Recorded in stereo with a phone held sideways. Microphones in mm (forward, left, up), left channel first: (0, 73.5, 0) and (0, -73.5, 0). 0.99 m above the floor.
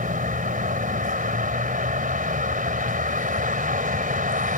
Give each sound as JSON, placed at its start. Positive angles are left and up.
{"t": 0.0, "sound": "a vehicle", "side_deg": -70}